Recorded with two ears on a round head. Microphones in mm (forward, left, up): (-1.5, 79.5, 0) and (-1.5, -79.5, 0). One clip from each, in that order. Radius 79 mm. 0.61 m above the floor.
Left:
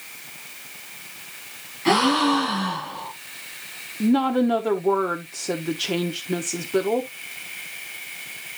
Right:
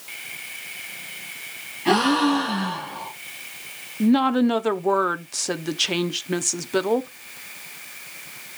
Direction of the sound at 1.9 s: 55° left (ahead or behind).